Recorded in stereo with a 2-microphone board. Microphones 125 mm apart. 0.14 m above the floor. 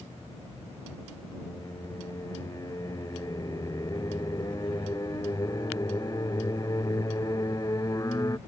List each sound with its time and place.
1.3 s singing: 30° left (ahead or behind)